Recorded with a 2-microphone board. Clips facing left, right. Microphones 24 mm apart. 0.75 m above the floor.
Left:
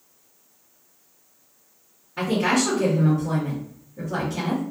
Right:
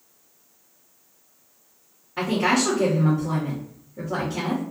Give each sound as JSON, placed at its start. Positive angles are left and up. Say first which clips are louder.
{"t": 2.2, "sound": "a woman speaking", "louder": "even", "side_deg": -40, "distance_m": 1.7}